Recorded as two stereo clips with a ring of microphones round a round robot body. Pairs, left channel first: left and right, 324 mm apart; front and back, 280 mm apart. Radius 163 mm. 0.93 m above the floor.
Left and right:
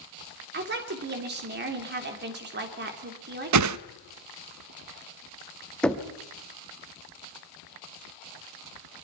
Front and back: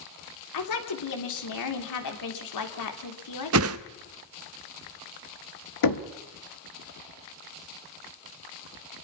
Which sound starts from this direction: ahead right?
A woman speaking, at 0.5 s.